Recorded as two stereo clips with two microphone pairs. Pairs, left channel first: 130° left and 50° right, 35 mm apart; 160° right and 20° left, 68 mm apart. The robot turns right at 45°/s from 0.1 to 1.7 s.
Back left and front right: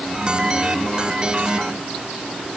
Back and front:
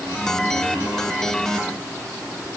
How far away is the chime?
No chime in this recording.